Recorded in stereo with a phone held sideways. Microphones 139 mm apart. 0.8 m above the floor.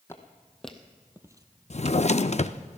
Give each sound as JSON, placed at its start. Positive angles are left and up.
{"t": 0.1, "sound": "footsteps", "side_deg": 20, "distance_m": 1.8}
{"t": 1.7, "sound": "a drawer", "side_deg": 55, "distance_m": 0.5}